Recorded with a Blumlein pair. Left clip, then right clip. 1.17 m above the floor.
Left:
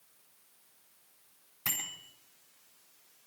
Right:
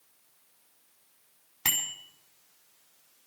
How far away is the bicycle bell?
About 5.5 m.